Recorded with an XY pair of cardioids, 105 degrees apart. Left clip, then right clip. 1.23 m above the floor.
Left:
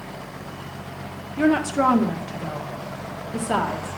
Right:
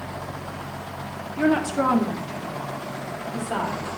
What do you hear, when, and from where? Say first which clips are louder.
1.4 s a woman speaking: left 2 dB; 15° left, 1.4 m; by 4.0 s 65° left, 1.7 m